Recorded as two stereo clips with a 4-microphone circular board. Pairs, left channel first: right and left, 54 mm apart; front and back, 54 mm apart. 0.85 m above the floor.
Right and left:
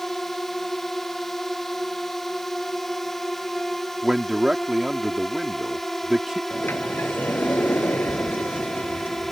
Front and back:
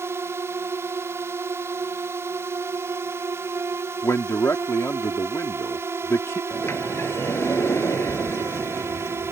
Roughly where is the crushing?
No crushing in this recording.